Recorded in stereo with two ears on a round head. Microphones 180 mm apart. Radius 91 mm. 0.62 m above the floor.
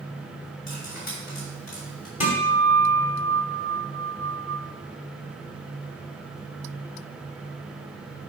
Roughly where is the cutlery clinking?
Left.